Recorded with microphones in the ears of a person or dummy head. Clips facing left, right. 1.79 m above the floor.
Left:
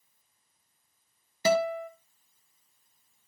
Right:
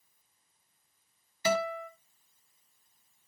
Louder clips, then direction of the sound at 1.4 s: Left 5 dB; 40° left (ahead or behind).